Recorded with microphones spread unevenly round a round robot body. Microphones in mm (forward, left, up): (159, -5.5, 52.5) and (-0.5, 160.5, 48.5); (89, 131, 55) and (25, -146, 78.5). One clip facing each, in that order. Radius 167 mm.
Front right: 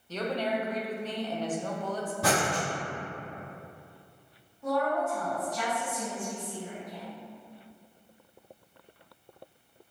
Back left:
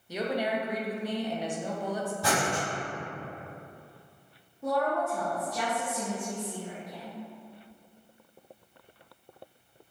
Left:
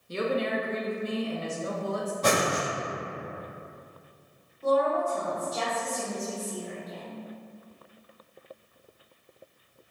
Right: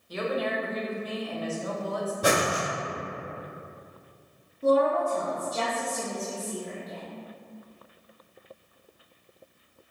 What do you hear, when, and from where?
0.1 s a woman speaking: 65° left, 0.7 m
2.2 s breathing: 25° right, 1.7 m
4.6 s a woman speaking: 170° right, 0.6 m